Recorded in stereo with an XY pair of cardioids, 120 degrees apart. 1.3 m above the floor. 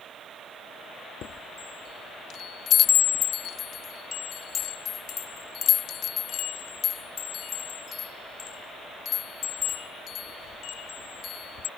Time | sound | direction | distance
1.2 | a chime | 60° left | ?